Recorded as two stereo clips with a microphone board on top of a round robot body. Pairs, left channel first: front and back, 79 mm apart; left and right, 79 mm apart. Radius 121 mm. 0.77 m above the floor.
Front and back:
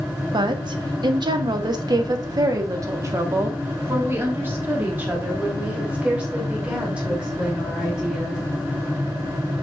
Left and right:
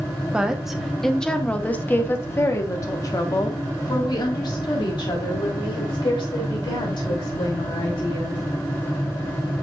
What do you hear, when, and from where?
0.3 s a woman speaking: 170° right, 1.4 m; by 8.4 s 100° left, 4 m